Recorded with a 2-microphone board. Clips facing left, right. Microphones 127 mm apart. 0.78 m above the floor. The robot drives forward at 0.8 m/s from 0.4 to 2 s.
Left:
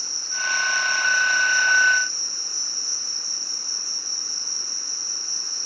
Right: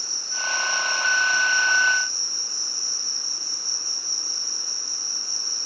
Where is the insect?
55° left (ahead or behind), 2.5 m; by 5.7 s 70° left (ahead or behind), 2.5 m.